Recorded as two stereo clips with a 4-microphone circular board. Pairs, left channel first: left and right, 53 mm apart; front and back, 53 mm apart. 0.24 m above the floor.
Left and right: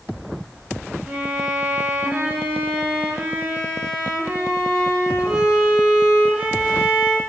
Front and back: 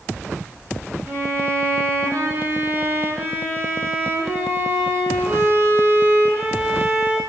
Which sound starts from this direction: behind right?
A violin, at 1.1 s.